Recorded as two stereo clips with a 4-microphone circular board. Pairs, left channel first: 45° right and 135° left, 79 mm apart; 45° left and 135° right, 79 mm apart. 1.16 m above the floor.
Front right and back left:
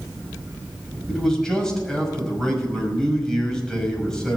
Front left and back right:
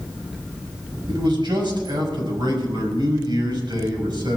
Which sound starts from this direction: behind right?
A man speaking, at 1.1 s.